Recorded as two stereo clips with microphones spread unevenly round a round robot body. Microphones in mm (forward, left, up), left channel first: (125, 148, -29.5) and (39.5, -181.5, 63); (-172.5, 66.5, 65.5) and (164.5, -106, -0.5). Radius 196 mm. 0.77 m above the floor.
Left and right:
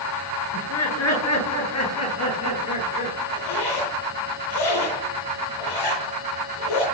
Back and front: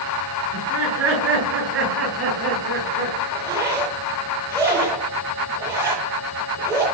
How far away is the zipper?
About 10 m.